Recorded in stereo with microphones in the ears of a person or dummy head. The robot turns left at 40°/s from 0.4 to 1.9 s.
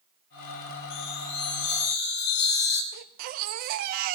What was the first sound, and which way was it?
A chime, 100° left.